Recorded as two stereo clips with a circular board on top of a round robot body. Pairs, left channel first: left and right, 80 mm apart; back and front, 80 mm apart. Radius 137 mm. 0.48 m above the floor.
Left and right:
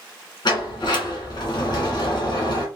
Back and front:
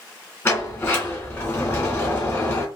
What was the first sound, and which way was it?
A sliding door, 120° left.